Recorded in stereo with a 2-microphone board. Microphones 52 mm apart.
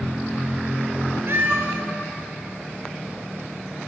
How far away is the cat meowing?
About 0.8 m.